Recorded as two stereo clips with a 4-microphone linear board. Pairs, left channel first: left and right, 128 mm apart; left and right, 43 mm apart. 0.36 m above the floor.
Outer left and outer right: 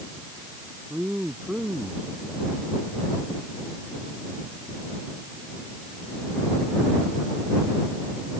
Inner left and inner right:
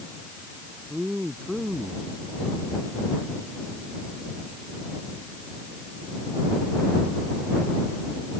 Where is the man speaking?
10° right (ahead or behind).